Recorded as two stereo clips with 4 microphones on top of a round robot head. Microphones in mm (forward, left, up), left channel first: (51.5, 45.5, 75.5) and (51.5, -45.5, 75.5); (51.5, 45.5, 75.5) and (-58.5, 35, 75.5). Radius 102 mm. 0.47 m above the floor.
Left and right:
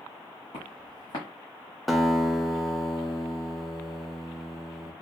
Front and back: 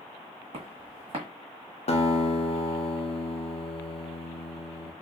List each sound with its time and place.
0.5 s footsteps: 150° left, 1.6 m
1.9 s a guitar: straight ahead, 0.8 m